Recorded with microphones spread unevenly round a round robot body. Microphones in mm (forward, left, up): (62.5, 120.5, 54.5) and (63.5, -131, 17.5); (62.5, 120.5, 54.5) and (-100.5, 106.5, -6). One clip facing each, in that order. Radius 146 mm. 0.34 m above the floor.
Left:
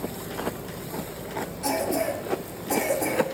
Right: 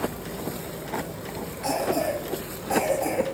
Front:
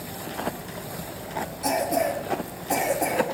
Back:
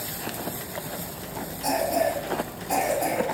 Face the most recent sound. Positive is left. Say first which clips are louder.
# right 1 dB, even
turn(degrees=70)